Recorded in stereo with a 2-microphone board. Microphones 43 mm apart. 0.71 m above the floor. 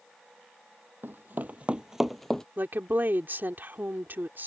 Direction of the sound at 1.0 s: 55° right (ahead or behind).